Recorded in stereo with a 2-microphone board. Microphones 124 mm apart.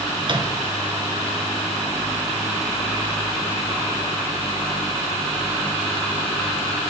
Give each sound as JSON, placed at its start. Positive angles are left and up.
{"t": 0.2, "sound": "a microwave", "side_deg": -40, "distance_m": 2.5}